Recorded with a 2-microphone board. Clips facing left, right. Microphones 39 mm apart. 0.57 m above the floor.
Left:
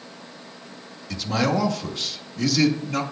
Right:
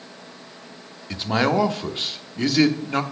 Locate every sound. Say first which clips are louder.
1.1 s a man speaking: right 2 dB; 30° right (ahead or behind), 0.8 m